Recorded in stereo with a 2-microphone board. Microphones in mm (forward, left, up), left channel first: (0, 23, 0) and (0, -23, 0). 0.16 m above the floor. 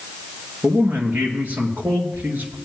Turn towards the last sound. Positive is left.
turn(degrees=-45)  # may be behind; listen again after turning